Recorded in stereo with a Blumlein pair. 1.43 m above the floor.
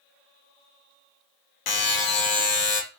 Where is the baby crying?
I don't hear a baby crying.